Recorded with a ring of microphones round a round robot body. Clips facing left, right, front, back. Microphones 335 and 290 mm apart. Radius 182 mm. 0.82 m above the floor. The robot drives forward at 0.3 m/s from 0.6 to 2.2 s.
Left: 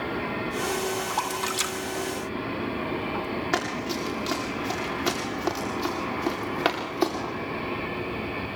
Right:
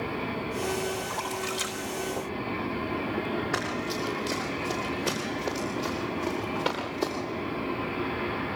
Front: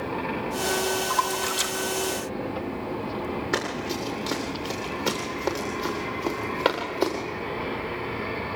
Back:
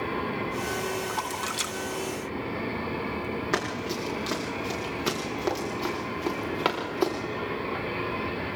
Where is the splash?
95° left, 3 m; by 3.2 s 100° left, 3 m.